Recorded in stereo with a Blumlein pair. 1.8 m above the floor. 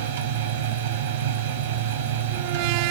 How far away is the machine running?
About 0.8 m.